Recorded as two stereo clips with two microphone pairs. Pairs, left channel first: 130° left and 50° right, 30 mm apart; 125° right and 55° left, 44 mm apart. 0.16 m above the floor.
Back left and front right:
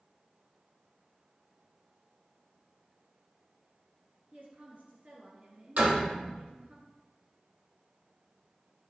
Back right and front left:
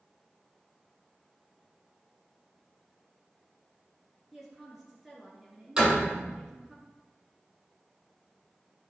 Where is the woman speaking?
30° right, 2.5 m.